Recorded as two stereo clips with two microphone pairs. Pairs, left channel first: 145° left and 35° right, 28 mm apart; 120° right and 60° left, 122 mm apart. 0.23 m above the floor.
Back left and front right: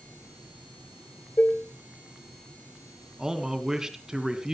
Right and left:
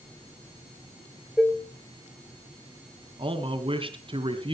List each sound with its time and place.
1.4 s dishes clattering: 140° left, 2.5 m
3.2 s a man speaking: 30° left, 2.5 m